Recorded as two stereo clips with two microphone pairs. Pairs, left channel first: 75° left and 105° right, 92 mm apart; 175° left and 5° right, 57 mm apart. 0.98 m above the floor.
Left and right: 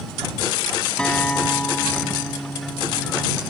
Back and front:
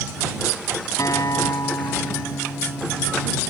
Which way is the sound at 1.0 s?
155° left.